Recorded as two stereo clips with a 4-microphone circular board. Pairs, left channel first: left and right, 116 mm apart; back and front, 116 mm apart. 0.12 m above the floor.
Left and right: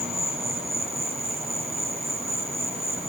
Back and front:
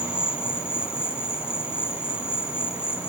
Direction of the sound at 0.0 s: 110° right.